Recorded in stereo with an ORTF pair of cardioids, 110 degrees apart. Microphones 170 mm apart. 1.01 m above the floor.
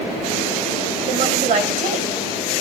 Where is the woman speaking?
50° right, 2.5 m.